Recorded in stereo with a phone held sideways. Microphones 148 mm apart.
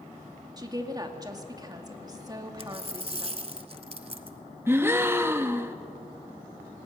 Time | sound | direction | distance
0.6 | a woman speaking | 25° right (ahead or behind) | 1.8 m
2.6 | a dropped coin | 40° right (ahead or behind) | 1.0 m
4.7 | a gasp | 15° right (ahead or behind) | 0.9 m